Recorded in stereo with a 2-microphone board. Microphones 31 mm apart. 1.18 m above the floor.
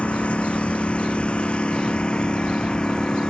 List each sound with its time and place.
0.0 s a lawn mower: 40° left (ahead or behind); by 3.3 s 30° left (ahead or behind)